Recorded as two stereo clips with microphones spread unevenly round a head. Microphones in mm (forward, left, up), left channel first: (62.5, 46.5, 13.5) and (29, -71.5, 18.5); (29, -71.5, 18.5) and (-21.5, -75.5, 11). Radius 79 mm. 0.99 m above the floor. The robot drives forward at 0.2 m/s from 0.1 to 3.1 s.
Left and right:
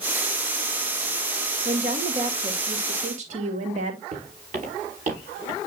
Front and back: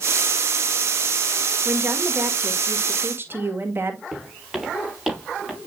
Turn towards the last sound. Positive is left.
turn(degrees=-90)